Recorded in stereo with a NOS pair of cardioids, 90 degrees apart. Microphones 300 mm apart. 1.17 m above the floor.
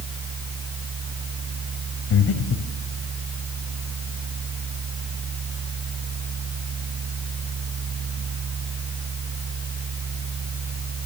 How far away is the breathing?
About 2.5 m.